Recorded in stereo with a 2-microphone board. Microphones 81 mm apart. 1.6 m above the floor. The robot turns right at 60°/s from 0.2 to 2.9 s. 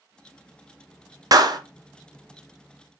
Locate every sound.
1.3 s a clap: 50° right (ahead or behind), 0.6 m; by 1.6 s 55° right (ahead or behind), 0.6 m